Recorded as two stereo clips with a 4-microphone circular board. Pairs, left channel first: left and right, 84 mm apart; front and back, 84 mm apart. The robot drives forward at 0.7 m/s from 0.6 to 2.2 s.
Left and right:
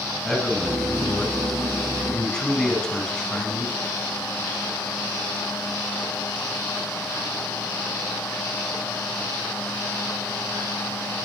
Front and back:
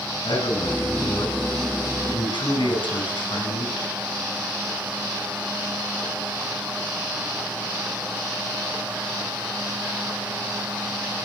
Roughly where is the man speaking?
Ahead.